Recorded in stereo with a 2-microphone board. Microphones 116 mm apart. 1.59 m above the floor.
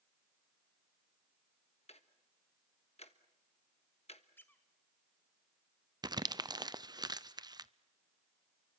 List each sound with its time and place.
1.9 s ticking: 65° left (ahead or behind), 1.3 m
4.4 s a squeak: 20° left (ahead or behind), 1.9 m
6.0 s crumpling: 35° right (ahead or behind), 0.6 m